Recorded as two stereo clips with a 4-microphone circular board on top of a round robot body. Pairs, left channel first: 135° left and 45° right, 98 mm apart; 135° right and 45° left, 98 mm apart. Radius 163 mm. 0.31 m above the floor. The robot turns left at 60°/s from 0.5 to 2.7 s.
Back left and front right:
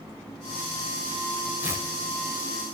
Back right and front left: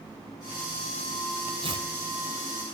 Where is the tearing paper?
30° left, 4 m; by 1.9 s 15° left, 4 m.